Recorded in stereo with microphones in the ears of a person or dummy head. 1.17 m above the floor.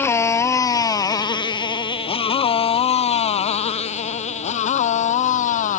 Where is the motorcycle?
20° left (ahead or behind); by 5.8 s 50° left (ahead or behind).